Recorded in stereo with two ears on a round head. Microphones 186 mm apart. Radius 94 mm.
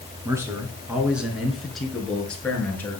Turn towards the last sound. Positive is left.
turn(degrees=10)  # may be behind; listen again after turning